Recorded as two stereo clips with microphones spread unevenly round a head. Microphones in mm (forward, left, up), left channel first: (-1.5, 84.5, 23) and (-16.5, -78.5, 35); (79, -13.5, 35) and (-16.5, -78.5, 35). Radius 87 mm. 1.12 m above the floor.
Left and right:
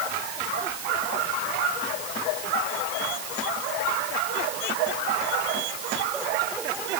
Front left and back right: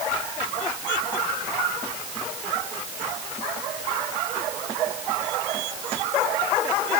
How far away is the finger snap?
I don't hear a finger snap.